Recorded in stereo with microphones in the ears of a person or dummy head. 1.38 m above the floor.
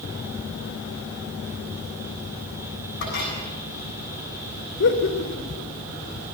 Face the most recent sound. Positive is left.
turn(degrees=60)  # may be behind; listen again after turning